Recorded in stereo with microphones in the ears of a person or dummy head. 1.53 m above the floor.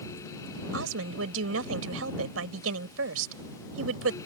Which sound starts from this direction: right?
A woman speaking, at 0.7 s.